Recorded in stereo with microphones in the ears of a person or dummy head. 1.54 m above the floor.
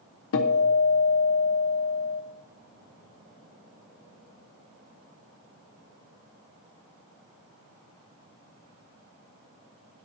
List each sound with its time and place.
0.3 s a guitar: 70° left (ahead or behind), 0.7 m